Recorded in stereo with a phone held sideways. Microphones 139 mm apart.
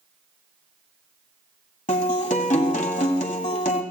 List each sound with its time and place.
1.9 s a guitar: 65° left (ahead or behind), 1.6 m